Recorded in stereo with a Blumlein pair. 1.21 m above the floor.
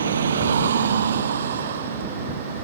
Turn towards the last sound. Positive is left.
turn(degrees=-60)